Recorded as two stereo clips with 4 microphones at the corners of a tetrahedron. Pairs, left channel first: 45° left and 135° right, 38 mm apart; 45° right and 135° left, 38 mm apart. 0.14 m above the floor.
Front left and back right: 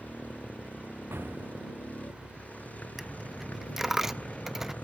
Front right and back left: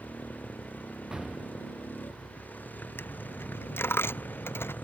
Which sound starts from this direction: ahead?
A motorcycle, at 0.0 s.